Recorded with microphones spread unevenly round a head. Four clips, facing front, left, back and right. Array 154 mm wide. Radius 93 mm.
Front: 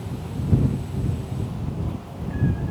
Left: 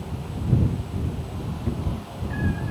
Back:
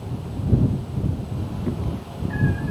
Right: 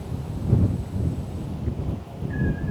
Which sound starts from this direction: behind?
A cat meowing, at 1.7 s.